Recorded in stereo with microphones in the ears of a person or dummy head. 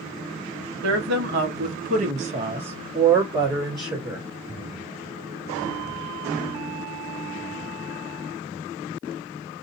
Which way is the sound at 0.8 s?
75° right (ahead or behind).